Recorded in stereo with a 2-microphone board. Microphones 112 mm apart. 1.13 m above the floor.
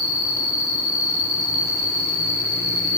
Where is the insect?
65° right (ahead or behind), 3.5 m.